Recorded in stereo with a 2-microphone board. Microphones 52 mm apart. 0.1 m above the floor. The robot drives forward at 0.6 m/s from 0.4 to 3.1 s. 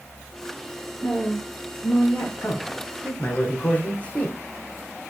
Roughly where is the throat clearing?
I don't hear throat clearing.